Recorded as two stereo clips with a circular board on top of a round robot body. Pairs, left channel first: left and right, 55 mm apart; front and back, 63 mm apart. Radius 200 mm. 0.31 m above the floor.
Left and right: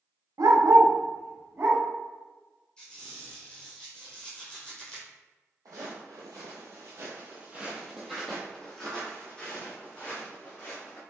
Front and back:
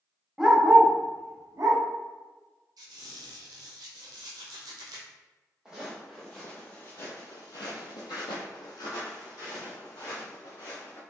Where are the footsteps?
100° right, 1.1 m; by 11.0 s 30° left, 2.5 m.